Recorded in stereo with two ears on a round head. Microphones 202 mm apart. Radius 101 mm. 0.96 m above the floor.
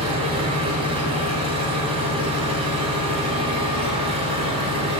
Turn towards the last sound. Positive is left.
turn(degrees=-25)  # may be behind; listen again after turning